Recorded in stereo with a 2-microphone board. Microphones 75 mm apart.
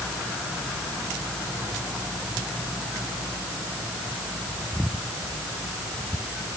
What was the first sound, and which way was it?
Only background noise.